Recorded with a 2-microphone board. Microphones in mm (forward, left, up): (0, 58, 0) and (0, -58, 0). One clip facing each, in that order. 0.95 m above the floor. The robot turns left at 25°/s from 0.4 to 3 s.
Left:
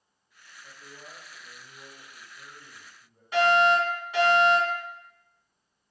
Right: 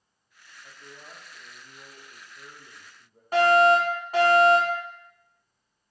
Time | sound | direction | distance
0.6 | a man speaking | 15° left | 1.9 m
3.3 | a fire alarm | 40° right (ahead or behind) | 1.7 m